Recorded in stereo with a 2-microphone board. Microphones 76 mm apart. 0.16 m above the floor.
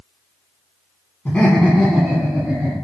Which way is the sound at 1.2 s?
25° left (ahead or behind).